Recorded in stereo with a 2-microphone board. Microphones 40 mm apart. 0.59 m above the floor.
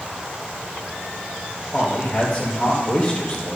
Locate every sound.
1.7 s a man speaking: 40° left (ahead or behind), 2.5 m